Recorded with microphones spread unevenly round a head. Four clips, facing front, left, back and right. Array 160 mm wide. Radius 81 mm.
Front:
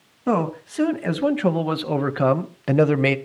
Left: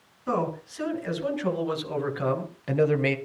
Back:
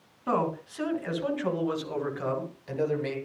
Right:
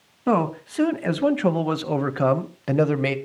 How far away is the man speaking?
About 2 m.